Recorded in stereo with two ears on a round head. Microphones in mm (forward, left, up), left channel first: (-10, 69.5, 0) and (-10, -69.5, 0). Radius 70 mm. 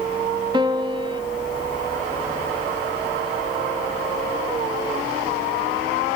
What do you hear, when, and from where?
0.5 s a piano: 30° right (ahead or behind), 0.5 m